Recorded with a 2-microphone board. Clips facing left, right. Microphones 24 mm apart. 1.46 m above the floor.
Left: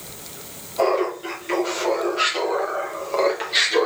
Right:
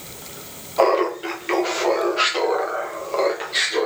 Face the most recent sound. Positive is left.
turn(degrees=20)  # may be behind; listen again after turning